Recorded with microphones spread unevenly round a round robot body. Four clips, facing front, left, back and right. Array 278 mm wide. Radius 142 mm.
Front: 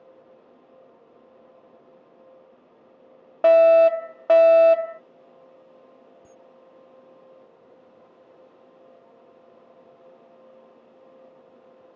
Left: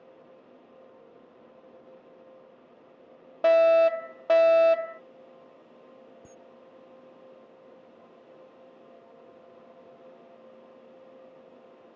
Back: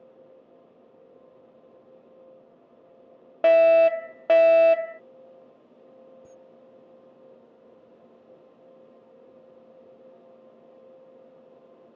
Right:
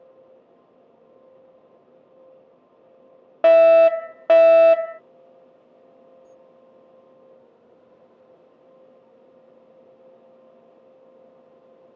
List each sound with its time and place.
3.4 s a fire alarm: 75° right
6.2 s a camera shutter: 105° left